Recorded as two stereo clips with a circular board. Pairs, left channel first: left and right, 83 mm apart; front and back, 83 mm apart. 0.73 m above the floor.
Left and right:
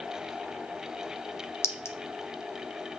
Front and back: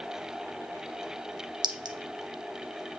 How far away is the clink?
About 0.6 m.